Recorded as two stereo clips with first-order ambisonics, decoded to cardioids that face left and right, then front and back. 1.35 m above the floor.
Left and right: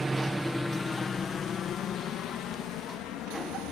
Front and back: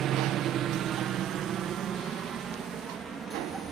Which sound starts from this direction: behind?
A helicopter, at 0.0 s.